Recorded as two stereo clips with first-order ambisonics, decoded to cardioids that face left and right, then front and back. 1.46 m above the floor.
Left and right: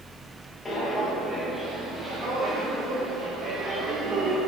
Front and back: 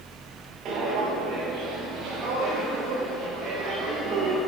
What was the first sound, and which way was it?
Footsteps, 155° left.